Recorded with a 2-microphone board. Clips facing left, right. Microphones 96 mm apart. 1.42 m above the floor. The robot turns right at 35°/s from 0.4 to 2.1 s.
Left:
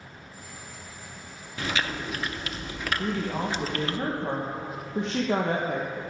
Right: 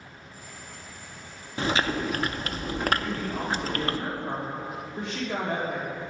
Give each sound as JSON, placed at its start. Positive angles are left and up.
{"t": 1.6, "sound": "chewing", "side_deg": -30, "distance_m": 0.6}
{"t": 3.0, "sound": "a woman speaking", "side_deg": 80, "distance_m": 1.6}